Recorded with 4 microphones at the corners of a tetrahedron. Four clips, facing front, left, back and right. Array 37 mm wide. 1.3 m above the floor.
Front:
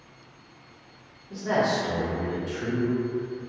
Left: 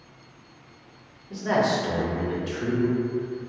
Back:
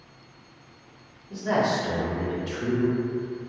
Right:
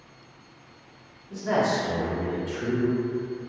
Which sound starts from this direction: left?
A man speaking, at 1.3 s.